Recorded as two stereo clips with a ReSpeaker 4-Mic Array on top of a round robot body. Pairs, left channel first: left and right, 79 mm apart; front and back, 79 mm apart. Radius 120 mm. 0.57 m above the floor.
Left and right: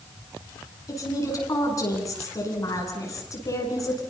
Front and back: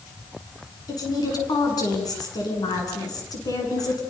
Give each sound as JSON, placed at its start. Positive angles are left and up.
{"t": 0.9, "sound": "a woman speaking", "azimuth_deg": 40, "distance_m": 8.5}